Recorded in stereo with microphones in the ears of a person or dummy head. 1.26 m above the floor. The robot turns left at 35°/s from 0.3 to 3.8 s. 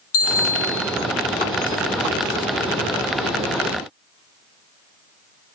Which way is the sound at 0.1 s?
80° left.